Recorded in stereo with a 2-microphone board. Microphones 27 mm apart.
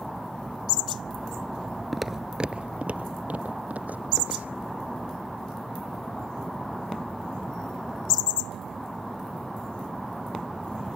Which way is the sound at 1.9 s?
Centre (ahead or behind).